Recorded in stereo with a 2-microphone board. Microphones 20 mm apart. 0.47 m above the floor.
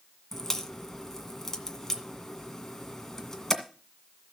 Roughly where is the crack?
Centre.